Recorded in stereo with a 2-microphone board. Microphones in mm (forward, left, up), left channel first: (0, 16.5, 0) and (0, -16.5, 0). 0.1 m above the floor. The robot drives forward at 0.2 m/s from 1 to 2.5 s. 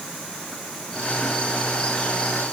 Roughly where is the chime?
No chime in this recording.